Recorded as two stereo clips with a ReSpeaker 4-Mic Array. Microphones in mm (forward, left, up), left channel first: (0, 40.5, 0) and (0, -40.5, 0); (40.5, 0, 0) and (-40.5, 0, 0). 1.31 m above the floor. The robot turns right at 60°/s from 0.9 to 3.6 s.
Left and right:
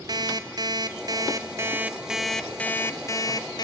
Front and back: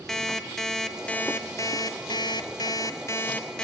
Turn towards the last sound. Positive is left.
turn(degrees=80)